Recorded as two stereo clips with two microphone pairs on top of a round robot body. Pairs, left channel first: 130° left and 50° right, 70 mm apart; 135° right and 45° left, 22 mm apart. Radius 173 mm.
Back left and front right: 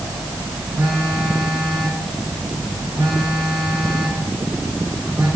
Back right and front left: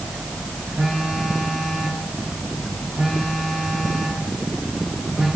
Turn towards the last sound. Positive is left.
turn(degrees=20)